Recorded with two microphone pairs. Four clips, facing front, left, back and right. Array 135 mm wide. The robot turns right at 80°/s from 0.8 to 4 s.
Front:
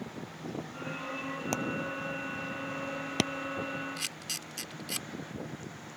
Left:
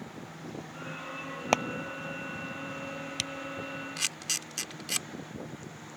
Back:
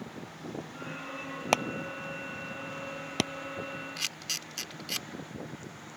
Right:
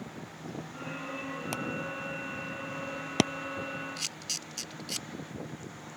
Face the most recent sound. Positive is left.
turn(degrees=95)